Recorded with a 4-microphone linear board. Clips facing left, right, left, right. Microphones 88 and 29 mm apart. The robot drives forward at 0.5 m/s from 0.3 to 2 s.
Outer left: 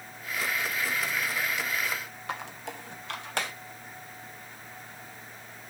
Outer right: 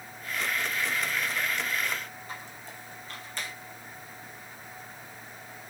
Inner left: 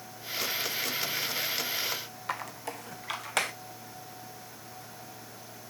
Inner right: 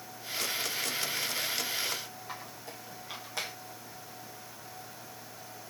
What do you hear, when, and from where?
2.3 s a squeak: 70° left (ahead or behind), 0.7 m